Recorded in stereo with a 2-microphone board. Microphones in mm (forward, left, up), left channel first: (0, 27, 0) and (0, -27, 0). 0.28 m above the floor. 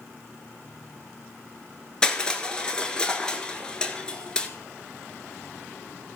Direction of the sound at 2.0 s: 15° left (ahead or behind).